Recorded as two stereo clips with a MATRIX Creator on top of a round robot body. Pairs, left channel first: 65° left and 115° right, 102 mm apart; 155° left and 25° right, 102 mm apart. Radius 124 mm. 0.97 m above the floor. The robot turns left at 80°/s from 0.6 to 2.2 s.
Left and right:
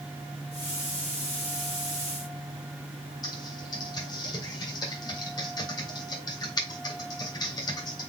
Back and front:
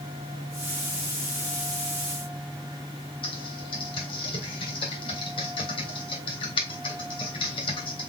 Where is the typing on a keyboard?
120° left, 1.8 m.